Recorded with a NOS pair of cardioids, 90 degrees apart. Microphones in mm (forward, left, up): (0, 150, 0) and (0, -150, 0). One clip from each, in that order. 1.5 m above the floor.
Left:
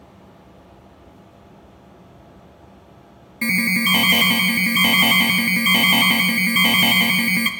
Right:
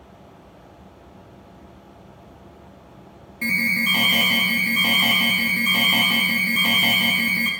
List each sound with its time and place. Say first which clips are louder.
3.4 s an alarm: left 1 dB; 30° left, 0.5 m